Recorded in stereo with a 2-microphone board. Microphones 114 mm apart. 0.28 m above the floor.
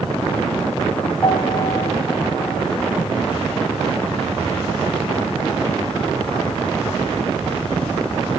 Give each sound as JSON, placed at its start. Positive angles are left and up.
{"t": 1.2, "sound": "a piano", "side_deg": 20, "distance_m": 3.0}